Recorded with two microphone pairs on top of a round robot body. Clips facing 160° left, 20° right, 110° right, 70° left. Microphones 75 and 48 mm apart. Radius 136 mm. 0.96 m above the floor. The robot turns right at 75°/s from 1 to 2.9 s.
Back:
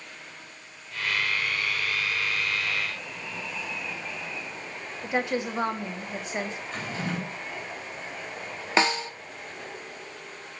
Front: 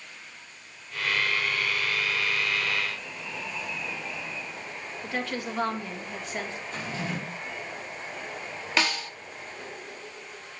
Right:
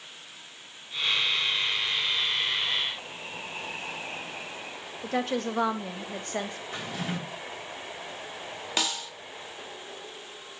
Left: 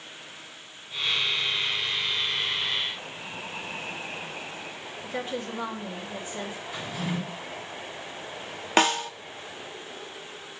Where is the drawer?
150° right, 3.5 m.